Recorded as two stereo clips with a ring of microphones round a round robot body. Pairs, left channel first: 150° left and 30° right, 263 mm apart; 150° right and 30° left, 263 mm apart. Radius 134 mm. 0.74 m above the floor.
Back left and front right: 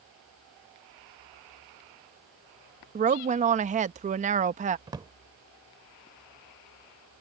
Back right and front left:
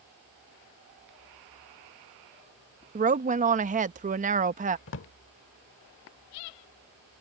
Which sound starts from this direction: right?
A drawer, at 4.9 s.